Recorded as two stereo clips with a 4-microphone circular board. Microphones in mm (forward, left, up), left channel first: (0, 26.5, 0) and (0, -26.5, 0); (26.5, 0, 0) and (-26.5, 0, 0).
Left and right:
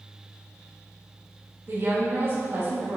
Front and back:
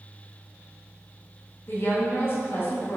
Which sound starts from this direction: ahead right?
A woman speaking, at 1.7 s.